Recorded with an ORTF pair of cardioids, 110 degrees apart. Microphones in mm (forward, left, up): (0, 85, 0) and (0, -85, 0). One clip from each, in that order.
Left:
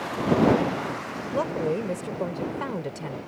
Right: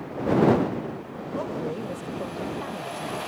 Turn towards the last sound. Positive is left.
turn(degrees=45)